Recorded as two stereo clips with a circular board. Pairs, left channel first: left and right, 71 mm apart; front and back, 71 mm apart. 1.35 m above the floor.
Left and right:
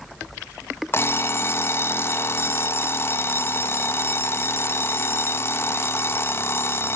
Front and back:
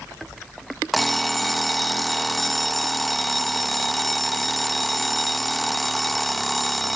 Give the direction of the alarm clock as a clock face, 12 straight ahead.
9 o'clock.